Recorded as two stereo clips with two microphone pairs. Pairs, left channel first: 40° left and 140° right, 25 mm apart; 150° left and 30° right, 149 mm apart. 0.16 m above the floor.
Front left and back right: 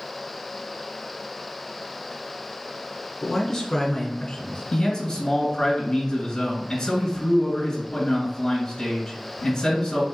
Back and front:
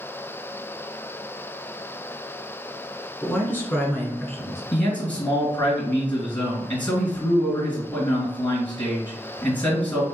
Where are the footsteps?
No footsteps in this recording.